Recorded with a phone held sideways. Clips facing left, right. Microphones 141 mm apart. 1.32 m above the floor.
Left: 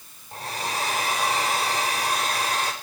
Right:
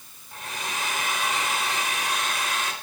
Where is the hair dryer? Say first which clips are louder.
Left 4 dB; 35° left (ahead or behind), 4 m.